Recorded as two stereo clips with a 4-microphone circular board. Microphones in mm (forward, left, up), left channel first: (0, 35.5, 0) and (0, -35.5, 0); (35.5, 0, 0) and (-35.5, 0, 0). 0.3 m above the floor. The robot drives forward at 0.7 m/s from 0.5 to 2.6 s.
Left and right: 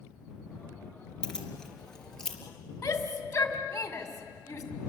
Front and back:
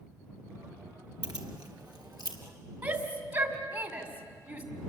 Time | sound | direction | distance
1.2 | keys jangling | 170° left | 3 m
2.8 | a shout | 145° left | 2.5 m